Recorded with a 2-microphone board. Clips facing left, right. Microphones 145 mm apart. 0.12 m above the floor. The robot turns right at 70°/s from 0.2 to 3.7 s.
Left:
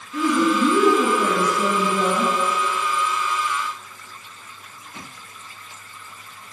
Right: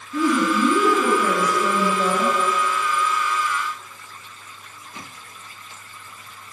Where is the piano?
No piano in this recording.